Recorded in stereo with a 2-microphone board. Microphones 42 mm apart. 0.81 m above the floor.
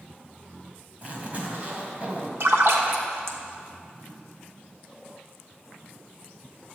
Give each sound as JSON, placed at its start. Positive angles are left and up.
{"t": 1.0, "sound": "a zipper", "side_deg": -40, "distance_m": 2.0}
{"t": 2.4, "sound": "a splash", "side_deg": -75, "distance_m": 1.2}